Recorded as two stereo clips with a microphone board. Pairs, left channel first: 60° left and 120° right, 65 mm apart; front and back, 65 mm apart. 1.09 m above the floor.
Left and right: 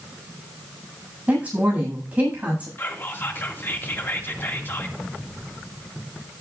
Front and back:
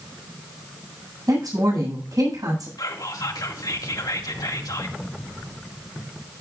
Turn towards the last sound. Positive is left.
turn(degrees=5)